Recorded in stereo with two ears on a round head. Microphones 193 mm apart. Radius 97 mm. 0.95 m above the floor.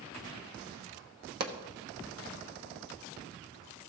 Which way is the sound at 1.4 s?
45° right (ahead or behind).